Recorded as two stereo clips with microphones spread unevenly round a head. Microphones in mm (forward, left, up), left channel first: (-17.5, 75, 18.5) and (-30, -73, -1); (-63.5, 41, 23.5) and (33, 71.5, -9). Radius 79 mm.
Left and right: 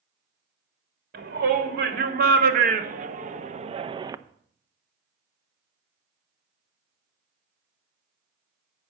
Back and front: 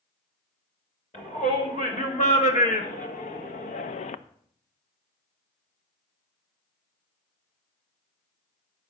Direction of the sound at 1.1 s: 115° right.